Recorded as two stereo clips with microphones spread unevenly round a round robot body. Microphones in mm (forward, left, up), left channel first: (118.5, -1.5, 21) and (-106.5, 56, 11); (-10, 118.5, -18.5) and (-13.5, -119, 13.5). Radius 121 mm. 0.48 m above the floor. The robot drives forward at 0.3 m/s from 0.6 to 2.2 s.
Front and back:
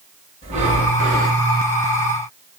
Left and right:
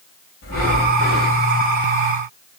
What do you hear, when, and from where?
0.4 s breathing: 105° left, 1.8 m; by 1.4 s 115° left, 1.9 m